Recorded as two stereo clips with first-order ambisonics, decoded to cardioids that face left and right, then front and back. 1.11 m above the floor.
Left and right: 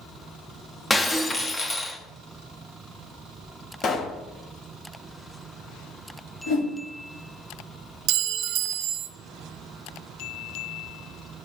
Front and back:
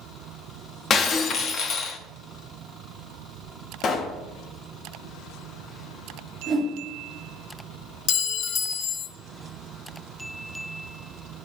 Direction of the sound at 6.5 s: 80° left.